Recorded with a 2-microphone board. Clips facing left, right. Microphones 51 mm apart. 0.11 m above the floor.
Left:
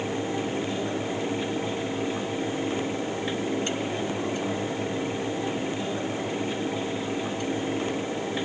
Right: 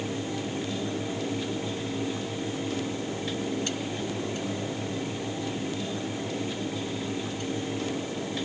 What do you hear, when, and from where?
Only background noise.